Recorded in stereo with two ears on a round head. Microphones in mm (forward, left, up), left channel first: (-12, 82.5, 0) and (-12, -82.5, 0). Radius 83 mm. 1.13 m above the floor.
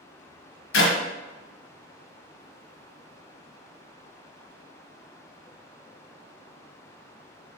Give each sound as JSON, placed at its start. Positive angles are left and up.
{"t": 0.7, "sound": "a clap", "side_deg": 70, "distance_m": 1.1}